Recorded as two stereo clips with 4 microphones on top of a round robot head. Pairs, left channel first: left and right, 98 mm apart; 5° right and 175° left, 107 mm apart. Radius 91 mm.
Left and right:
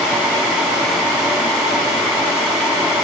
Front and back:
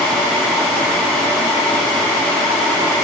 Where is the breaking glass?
I don't hear breaking glass.